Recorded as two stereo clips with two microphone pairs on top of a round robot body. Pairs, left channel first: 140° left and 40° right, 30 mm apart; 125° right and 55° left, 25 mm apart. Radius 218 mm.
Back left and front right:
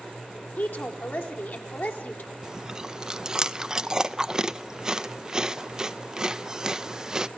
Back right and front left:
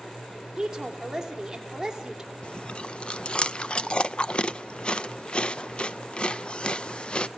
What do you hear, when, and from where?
0.6 s a woman speaking: 130° left, 3.5 m
2.4 s chewing: 105° right, 0.8 m